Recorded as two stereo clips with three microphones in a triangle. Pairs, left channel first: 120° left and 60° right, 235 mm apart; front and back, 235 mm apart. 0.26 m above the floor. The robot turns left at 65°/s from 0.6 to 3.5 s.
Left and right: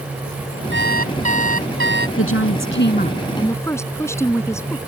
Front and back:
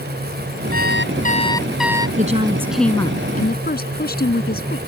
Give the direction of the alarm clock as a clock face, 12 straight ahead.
1 o'clock.